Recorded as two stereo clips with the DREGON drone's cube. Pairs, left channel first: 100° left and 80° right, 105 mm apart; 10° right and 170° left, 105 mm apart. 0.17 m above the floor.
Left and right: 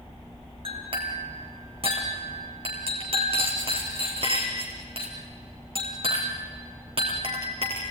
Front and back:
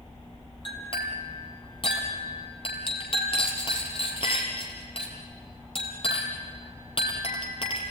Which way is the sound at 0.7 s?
45° right.